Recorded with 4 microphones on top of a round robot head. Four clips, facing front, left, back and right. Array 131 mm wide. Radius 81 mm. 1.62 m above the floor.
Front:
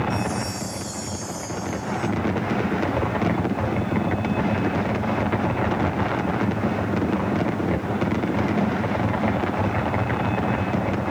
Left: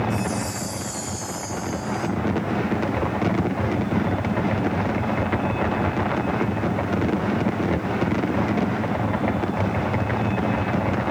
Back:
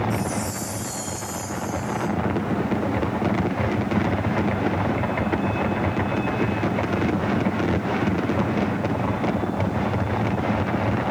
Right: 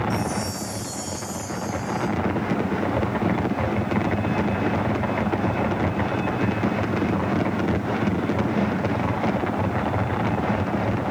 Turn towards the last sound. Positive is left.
turn(degrees=160)